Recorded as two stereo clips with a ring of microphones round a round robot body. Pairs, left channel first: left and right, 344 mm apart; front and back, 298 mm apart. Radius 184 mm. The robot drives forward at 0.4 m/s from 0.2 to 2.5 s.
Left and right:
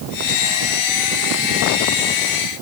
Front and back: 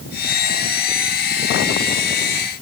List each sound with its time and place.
Only background noise.